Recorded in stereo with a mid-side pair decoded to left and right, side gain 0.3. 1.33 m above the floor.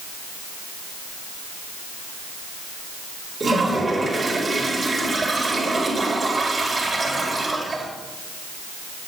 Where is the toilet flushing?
45° right, 4 m.